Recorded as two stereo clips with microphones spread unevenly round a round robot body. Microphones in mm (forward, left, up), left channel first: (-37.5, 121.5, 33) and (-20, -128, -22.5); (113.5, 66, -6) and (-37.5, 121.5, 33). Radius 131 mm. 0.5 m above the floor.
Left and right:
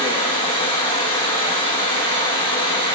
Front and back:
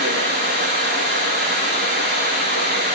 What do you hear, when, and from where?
0.0 s running water: 160° left, 3 m